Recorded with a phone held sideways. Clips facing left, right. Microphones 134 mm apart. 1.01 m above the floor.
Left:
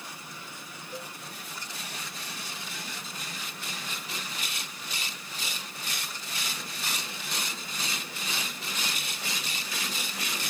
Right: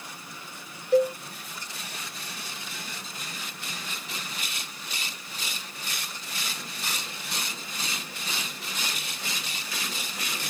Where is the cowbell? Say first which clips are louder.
Right 22 dB; 80° right.